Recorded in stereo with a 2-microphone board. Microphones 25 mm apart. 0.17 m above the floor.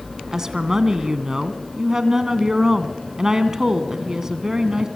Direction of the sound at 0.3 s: 20° right (ahead or behind).